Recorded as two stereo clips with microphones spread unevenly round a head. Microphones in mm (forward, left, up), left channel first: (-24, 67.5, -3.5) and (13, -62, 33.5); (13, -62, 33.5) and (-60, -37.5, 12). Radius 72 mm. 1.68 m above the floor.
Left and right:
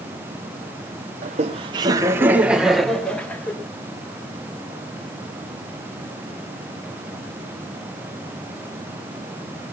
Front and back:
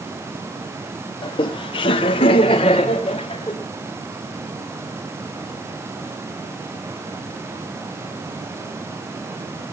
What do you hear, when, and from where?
1.2 s laughter: 35° right, 1.6 m; by 3.5 s 25° left, 3 m